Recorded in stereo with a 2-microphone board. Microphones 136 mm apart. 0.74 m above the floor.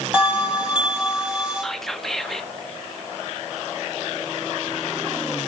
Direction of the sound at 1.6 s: Centre (ahead or behind).